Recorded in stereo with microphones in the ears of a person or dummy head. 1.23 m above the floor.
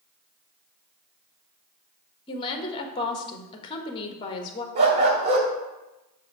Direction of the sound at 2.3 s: 35° left (ahead or behind).